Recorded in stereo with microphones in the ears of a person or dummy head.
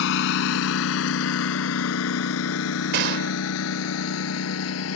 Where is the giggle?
No giggle in this recording.